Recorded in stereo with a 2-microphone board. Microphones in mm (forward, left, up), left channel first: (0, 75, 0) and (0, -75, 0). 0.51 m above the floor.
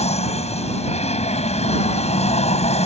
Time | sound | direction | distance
0.0 | an aircraft | 45° left (ahead or behind) | ?